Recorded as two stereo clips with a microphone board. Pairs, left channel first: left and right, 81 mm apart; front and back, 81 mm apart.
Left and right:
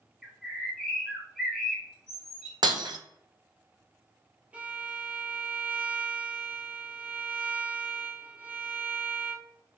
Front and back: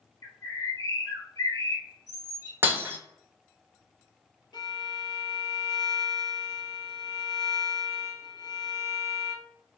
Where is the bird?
5° right, 1.1 m.